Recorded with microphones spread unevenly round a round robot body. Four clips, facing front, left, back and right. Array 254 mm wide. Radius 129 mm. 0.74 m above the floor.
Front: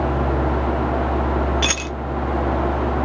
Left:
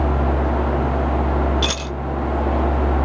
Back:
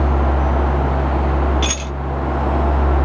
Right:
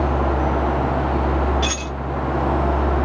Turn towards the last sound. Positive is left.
turn(degrees=65)